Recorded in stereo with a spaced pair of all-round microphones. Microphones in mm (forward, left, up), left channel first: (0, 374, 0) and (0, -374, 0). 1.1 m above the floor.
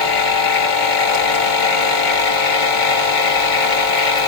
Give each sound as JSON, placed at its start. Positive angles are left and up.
{"t": 0.0, "sound": "a machine running", "side_deg": 75, "distance_m": 1.4}